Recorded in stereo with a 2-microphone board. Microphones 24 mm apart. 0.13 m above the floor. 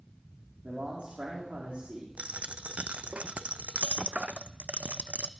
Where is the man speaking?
60° right (ahead or behind), 5.5 m.